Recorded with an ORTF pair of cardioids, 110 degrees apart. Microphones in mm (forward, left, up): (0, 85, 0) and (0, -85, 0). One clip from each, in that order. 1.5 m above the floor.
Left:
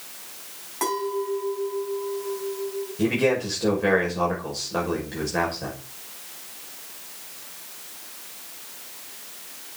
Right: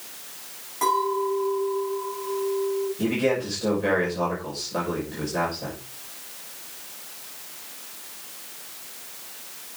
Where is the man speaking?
30° left, 6 m.